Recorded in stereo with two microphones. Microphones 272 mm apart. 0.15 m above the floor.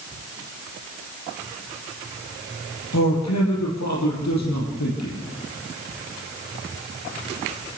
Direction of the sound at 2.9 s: 65° left (ahead or behind).